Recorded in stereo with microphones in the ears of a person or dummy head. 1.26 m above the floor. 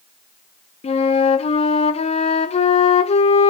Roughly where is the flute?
Left.